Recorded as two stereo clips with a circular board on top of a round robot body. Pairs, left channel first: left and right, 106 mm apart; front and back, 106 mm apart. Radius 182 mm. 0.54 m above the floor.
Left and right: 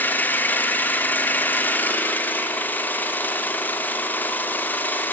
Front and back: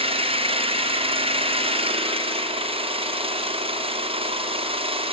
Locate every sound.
0.0 s an engine running: 165° left, 1.6 m